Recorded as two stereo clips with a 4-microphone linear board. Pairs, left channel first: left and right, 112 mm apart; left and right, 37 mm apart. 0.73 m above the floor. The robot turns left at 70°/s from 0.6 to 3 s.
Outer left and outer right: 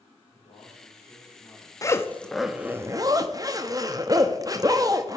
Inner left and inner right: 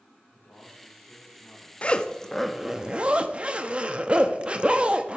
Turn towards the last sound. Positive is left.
turn(degrees=-45)